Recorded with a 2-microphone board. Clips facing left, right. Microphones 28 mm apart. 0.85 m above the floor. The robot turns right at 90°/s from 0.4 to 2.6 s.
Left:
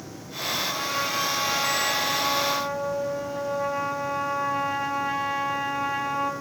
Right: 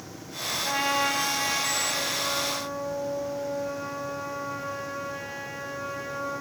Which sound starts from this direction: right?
A trumpet, at 0.7 s.